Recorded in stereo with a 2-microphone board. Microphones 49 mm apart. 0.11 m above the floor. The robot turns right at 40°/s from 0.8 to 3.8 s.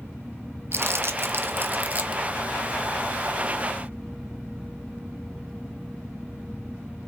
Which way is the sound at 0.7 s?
60° right (ahead or behind).